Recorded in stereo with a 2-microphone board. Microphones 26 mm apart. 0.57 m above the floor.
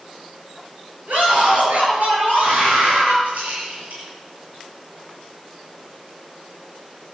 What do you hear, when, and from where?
1.1 s a scream: 75° right (ahead or behind), 8.5 m
3.2 s a rattle: 70° right (ahead or behind), 7 m